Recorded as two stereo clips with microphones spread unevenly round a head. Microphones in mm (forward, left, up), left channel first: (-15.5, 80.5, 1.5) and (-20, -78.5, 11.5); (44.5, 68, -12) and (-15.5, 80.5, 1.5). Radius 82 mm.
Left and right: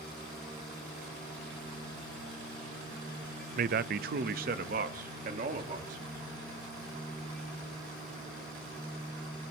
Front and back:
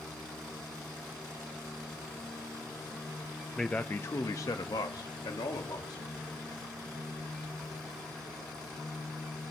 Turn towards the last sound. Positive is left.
turn(degrees=-45)